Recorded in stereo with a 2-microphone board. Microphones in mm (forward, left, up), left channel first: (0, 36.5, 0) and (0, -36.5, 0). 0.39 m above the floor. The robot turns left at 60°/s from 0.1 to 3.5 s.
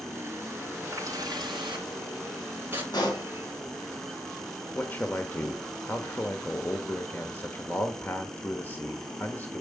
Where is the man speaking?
25° left (ahead or behind), 1.3 m.